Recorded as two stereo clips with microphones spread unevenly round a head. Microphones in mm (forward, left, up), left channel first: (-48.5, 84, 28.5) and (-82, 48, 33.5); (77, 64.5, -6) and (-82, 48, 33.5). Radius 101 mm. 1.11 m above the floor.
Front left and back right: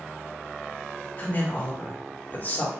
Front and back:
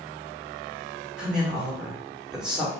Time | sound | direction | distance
1.2 | a woman speaking | 95° left | 1.7 m